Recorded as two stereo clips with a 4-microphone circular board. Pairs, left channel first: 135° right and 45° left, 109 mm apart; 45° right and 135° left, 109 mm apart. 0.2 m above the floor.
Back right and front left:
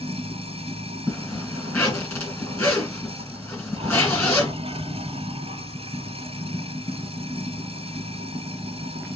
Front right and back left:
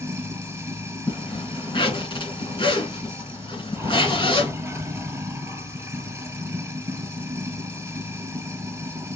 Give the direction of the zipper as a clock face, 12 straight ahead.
2 o'clock.